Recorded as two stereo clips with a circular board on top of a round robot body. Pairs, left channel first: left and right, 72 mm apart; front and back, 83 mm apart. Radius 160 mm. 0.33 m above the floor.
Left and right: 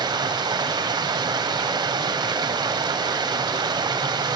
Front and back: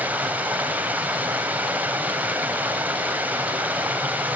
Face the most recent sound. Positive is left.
turn(degrees=-110)